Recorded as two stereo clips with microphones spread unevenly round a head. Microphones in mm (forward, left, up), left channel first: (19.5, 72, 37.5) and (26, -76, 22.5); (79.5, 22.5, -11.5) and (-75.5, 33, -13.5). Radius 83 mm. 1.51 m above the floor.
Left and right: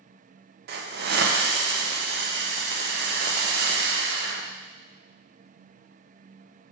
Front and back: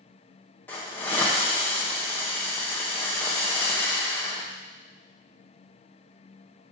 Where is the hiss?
85° right, 1.0 m.